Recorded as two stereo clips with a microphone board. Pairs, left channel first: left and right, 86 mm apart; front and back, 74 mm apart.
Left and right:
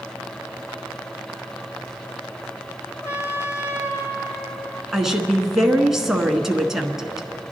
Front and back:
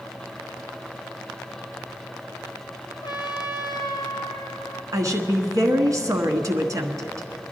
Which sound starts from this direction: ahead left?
A trumpet, at 3.0 s.